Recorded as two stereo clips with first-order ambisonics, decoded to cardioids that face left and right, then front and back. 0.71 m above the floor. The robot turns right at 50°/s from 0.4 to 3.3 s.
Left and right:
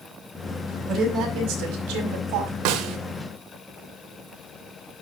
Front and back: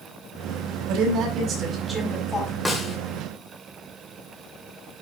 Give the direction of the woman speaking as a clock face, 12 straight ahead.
5 o'clock.